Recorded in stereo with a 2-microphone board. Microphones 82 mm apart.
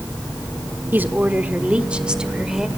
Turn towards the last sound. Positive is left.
turn(degrees=-5)  # may be behind; listen again after turning